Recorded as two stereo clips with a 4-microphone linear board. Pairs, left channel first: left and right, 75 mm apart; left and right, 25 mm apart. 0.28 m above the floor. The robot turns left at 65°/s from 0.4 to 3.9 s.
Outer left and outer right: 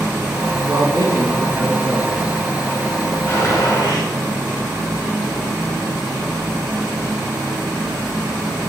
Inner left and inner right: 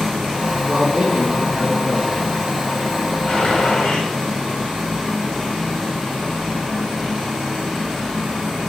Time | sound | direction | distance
0.7 | a man speaking | 75° right | 3 m
3.3 | a gunshot | 140° left | 3 m